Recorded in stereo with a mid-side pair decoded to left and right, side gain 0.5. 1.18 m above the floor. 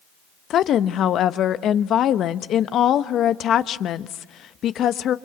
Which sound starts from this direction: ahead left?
A woman speaking, at 0.5 s.